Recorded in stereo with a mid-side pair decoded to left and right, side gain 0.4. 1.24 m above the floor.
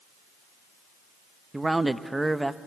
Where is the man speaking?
15° right, 1.0 m.